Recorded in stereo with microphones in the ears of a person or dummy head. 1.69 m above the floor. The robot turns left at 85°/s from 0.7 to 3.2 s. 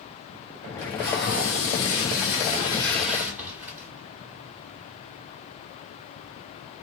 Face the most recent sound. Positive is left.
turn(degrees=-15)